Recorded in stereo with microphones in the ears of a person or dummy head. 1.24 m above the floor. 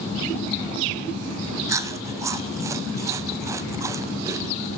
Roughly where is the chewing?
Centre.